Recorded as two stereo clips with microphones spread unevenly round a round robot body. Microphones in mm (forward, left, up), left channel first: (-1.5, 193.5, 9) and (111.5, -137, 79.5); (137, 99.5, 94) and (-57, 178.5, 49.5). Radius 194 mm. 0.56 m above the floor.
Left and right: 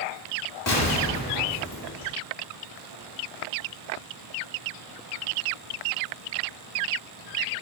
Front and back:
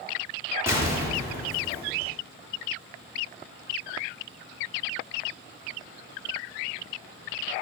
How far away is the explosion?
About 1.4 m.